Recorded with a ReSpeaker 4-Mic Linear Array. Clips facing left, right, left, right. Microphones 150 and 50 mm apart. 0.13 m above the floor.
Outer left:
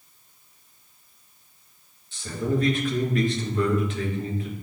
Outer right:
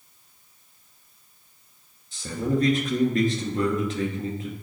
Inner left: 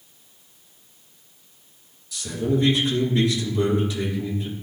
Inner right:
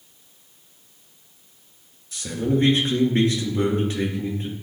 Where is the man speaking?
40° right (ahead or behind), 1.8 m.